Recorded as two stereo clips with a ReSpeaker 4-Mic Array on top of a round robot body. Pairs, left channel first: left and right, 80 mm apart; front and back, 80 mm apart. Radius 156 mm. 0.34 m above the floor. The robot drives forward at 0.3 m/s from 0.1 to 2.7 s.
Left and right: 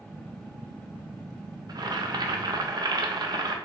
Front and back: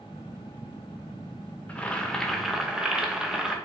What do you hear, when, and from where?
1.7 s boiling: 70° right, 0.8 m; by 3.5 s 100° right, 0.8 m